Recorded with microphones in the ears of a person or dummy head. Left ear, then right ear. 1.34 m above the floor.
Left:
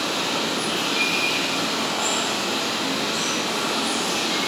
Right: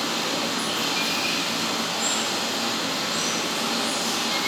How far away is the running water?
About 5.5 m.